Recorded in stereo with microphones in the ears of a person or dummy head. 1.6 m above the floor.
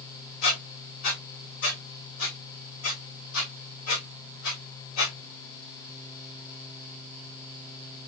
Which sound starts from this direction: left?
A squeak, at 0.4 s.